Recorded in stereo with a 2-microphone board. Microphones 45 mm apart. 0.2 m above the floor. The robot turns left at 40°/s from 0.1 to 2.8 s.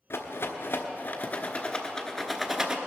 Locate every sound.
0.1 s a rattle: 70° left (ahead or behind), 1.1 m; by 2.8 s 10° right (ahead or behind), 1.1 m